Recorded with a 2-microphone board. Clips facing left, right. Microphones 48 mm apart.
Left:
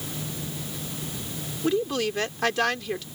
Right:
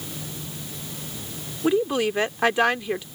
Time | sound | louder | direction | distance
1.6 | a woman speaking | right 4 dB | 20° right (ahead or behind) | ?